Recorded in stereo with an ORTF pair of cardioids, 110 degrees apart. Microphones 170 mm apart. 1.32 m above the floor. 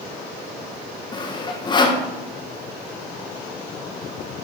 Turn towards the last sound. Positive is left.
turn(degrees=25)